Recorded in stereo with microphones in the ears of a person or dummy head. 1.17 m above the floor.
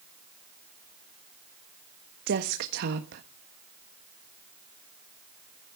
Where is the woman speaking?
60° right (ahead or behind), 1.4 m.